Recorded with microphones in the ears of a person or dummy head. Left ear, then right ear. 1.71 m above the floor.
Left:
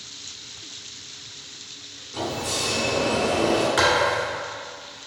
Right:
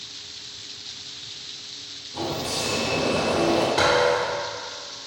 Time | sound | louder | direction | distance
2.1 | a sliding door | left 1 dB | 25° left (ahead or behind) | 1.3 m
3.8 | a thud | right 1 dB | 35° left (ahead or behind) | 1.5 m